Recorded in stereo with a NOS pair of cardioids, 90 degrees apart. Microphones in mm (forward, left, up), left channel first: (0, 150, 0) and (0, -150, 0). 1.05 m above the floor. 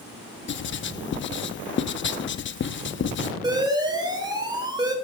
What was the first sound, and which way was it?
Writing, 40° left.